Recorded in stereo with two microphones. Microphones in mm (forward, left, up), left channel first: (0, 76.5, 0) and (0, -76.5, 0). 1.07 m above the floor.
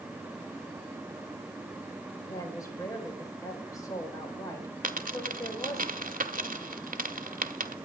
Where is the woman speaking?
25° left (ahead or behind), 4.5 m.